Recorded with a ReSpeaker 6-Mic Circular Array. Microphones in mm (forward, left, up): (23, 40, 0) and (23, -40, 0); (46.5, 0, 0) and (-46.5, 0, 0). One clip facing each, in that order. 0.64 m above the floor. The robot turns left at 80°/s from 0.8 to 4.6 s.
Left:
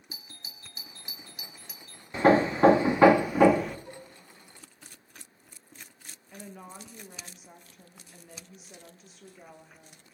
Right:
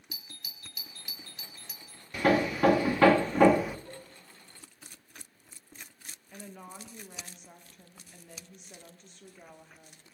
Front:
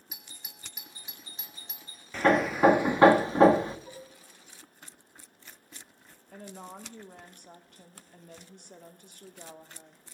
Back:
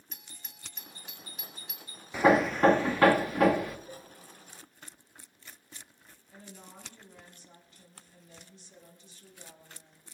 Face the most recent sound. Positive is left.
turn(degrees=5)